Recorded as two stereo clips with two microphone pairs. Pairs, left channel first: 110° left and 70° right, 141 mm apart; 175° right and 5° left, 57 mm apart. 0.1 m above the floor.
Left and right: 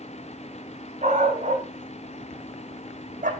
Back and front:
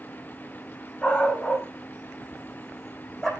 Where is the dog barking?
105° right, 4 m; by 3.3 s 95° right, 2.5 m.